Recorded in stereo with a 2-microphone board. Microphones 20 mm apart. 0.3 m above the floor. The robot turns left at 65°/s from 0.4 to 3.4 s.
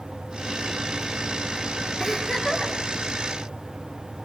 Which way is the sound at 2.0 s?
Straight behind.